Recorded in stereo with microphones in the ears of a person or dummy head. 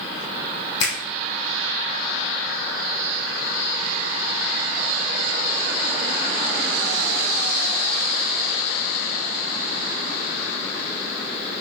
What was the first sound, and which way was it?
A finger snap, 25° left (ahead or behind).